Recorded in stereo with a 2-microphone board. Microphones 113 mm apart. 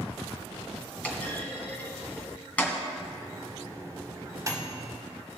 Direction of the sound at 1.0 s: 15° left (ahead or behind).